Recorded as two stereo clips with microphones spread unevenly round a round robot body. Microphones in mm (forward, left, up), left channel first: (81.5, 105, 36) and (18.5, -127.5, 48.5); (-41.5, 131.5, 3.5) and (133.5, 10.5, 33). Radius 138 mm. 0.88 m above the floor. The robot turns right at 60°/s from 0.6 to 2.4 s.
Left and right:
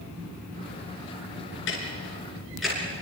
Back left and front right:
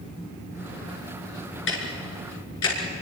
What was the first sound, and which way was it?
Ticking, 120° left.